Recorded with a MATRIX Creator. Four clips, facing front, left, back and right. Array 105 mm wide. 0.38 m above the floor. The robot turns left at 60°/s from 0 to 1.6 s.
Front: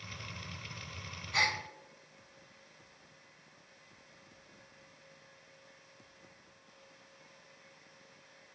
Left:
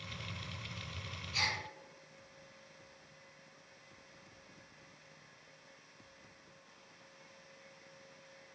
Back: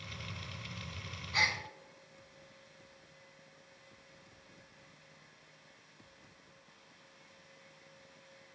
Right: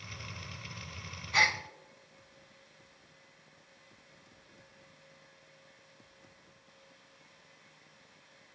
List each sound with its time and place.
1.3 s a gasp: 80° right, 0.6 m; by 1.6 s 95° right, 0.6 m